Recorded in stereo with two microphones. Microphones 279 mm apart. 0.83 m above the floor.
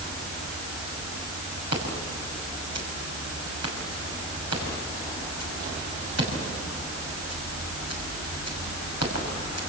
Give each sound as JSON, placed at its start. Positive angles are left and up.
{"t": 1.7, "sound": "scissors", "side_deg": -70, "distance_m": 6.0}